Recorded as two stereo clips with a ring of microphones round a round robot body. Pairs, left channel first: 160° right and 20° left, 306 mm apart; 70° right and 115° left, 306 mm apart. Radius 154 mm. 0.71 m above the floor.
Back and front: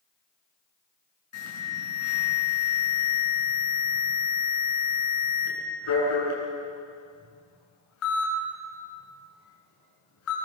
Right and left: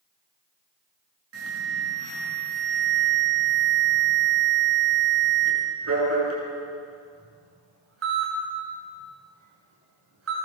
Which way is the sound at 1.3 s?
160° left.